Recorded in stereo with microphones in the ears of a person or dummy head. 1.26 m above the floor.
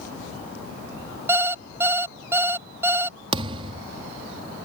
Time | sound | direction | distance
1.3 | an alarm clock | 15° right (ahead or behind) | ?
3.3 | a thud | 30° right (ahead or behind) | ?